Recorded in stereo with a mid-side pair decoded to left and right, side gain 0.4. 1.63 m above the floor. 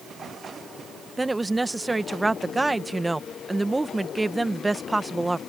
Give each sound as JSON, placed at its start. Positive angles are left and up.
{"t": 1.2, "sound": "a woman speaking", "azimuth_deg": -20}